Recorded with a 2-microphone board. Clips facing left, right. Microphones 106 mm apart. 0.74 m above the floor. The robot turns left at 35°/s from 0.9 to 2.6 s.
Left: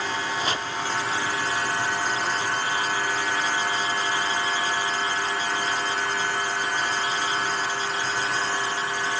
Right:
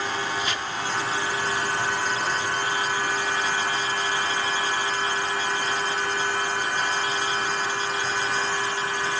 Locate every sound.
0.4 s chopping: 35° left (ahead or behind)